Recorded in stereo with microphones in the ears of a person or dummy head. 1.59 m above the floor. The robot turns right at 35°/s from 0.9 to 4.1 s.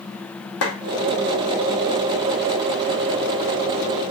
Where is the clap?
70° left (ahead or behind), 1.7 m.